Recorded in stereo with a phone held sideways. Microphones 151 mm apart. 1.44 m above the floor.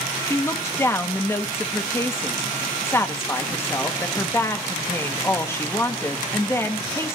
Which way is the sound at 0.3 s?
15° left (ahead or behind).